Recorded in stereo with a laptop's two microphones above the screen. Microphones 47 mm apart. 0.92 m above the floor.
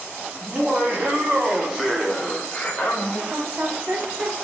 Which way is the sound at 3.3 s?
35° right (ahead or behind).